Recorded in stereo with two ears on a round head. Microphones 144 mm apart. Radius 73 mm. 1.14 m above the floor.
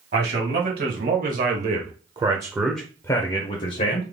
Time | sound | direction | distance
0.1 | a man speaking | 65° right (ahead or behind) | 1.6 m